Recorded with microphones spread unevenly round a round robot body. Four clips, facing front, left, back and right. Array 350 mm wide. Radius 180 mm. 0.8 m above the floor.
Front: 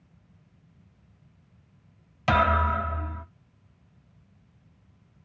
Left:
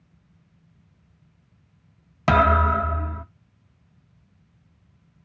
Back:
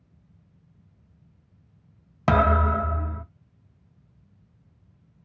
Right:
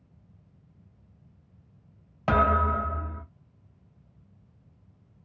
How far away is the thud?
About 0.7 m.